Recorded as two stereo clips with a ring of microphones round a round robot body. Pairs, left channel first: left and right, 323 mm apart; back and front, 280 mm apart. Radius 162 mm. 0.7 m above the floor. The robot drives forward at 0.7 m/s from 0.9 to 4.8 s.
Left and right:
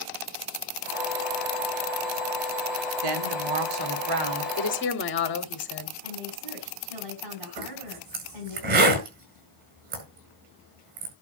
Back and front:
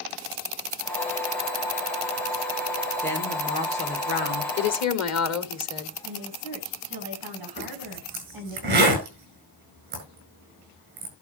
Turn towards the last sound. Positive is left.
turn(degrees=-65)